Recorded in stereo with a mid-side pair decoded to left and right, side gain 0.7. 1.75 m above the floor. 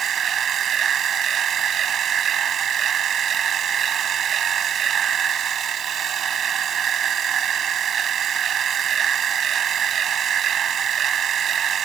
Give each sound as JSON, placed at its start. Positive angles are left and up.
{"t": 0.0, "sound": "a machine running", "azimuth_deg": -35}